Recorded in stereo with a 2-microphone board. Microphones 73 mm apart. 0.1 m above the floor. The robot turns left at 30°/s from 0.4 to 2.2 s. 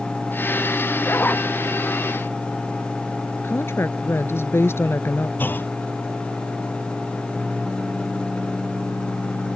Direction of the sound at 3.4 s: 35° left (ahead or behind).